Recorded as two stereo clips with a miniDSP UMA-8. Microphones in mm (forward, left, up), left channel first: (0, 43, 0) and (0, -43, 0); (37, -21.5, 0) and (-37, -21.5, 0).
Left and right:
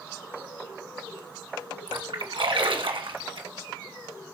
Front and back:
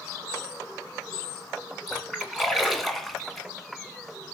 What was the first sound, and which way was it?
A splash, 90° right.